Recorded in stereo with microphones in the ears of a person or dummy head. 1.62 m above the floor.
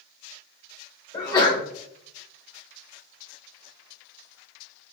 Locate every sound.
1.1 s a sneeze: 15° left (ahead or behind), 1.1 m